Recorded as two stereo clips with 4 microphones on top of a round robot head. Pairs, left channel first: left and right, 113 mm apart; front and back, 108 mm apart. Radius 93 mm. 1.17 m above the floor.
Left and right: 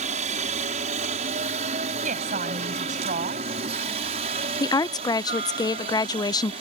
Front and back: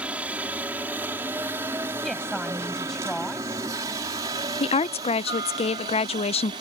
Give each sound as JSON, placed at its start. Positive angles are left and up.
{"t": 0.0, "sound": "a helicopter", "azimuth_deg": -100}
{"t": 2.0, "sound": "a woman speaking", "azimuth_deg": -85}
{"t": 4.6, "sound": "a woman speaking", "azimuth_deg": 30}